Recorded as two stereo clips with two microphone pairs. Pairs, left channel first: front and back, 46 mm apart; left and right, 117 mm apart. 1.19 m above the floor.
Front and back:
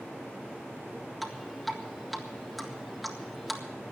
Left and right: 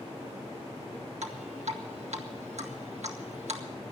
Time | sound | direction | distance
1.2 | dripping | 90° right | 1.7 m